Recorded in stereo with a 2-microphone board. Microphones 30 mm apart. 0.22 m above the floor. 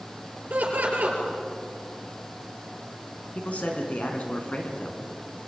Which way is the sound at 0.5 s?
75° right (ahead or behind).